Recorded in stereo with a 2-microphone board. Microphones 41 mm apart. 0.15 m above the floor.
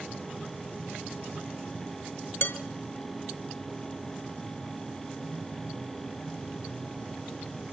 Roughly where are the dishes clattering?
Left.